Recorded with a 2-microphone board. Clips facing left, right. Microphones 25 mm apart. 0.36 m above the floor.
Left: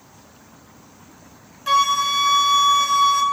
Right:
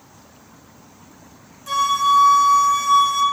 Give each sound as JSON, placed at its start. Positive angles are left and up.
{"t": 1.7, "sound": "a flute", "side_deg": 50, "distance_m": 0.9}